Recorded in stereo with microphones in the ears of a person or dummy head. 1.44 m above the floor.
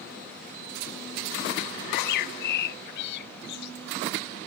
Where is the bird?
55° left (ahead or behind).